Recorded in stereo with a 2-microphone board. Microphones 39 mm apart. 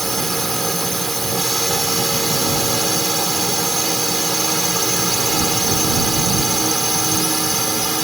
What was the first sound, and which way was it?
A drone, 5° left (ahead or behind).